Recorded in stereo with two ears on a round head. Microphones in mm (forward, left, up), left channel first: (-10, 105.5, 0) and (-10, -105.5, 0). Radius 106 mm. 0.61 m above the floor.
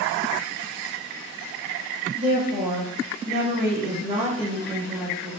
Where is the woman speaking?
35° right (ahead or behind), 1.4 m; by 5.3 s 10° right (ahead or behind), 1.1 m.